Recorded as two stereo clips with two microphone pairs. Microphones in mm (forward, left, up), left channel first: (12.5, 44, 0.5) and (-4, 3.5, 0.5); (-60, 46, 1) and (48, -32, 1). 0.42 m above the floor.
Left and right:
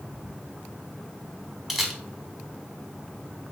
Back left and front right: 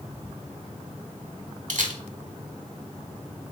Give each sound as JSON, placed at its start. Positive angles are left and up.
{"t": 1.7, "sound": "a camera shutter", "azimuth_deg": -25, "distance_m": 0.7}